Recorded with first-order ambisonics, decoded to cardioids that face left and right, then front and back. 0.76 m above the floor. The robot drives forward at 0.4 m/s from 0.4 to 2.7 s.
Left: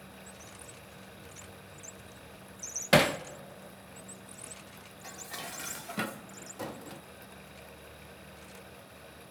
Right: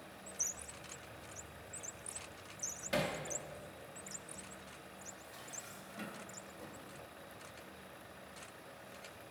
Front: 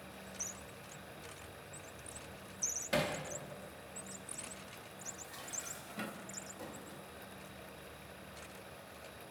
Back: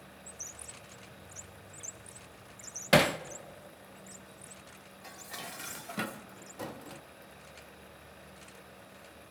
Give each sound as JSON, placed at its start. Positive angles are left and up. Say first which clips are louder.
{"t": 2.9, "sound": "hammering", "louder": "left 13 dB, back 11 dB", "azimuth_deg": 130, "distance_m": 0.5}
{"t": 5.0, "sound": "dishes clattering", "louder": "left 13 dB, back 6 dB", "azimuth_deg": 125, "distance_m": 0.7}